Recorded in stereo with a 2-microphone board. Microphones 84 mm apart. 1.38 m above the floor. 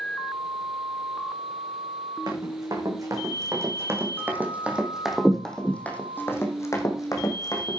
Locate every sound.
2.3 s running footsteps: 50° right (ahead or behind), 4.5 m; by 7.8 s 55° left (ahead or behind), 4 m